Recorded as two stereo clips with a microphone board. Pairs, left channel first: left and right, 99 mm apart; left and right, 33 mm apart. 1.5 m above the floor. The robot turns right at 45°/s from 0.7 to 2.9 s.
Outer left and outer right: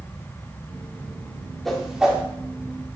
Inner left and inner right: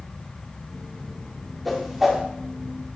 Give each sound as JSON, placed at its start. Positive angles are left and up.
{"t": 1.6, "sound": "a whoosh", "side_deg": 5, "distance_m": 1.2}